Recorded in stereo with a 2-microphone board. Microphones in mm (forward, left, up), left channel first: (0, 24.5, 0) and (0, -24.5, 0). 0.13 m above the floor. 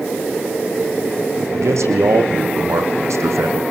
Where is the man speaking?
80° right, 6 m.